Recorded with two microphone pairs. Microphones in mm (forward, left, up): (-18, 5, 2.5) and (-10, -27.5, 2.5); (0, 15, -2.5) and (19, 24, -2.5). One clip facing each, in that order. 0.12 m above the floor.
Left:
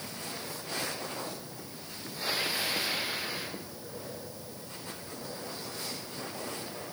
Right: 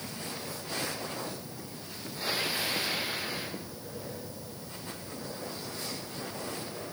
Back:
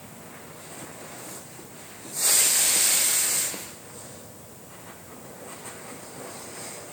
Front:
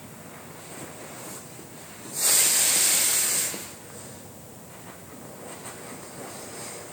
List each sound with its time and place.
Only background noise.